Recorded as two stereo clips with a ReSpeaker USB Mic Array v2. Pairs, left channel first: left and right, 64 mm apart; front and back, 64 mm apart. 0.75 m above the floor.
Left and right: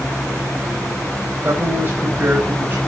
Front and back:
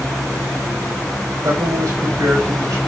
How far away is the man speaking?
About 5.5 m.